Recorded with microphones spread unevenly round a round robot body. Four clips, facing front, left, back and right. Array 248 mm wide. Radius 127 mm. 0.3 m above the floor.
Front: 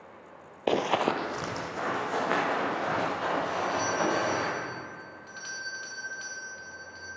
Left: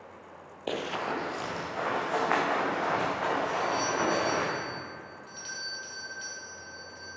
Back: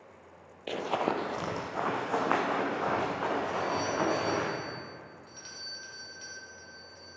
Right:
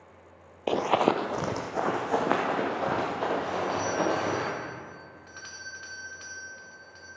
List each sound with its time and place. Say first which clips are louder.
0.7 s running footsteps: right 8 dB, front 5 dB; 10° right, 0.6 m; by 4.5 s 100° right, 5 m
3.5 s a doorbell: even, front 2 dB; 70° right, 1.8 m